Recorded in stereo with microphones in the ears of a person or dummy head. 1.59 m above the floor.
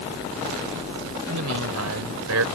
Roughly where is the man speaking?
Right.